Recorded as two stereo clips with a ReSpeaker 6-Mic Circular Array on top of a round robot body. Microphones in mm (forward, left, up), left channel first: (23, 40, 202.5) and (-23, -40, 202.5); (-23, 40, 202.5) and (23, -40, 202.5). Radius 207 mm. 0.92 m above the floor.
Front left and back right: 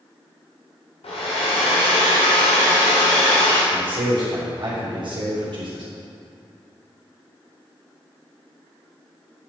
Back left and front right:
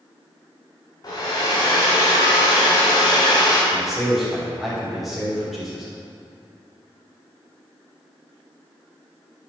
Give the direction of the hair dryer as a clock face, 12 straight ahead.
10 o'clock.